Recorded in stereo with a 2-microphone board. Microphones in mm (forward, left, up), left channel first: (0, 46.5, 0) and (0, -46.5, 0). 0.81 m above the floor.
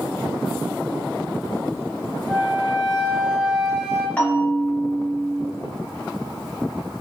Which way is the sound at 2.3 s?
5° right (ahead or behind).